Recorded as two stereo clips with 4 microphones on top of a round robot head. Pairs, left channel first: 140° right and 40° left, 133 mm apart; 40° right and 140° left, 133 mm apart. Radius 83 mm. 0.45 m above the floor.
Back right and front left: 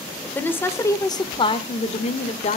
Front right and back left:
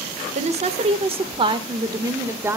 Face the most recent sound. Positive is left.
turn(degrees=-150)